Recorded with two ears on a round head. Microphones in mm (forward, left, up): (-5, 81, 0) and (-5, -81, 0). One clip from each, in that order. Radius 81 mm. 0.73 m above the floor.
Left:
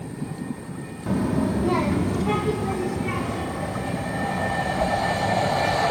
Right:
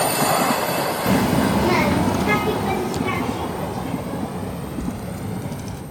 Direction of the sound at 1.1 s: 60° right (ahead or behind).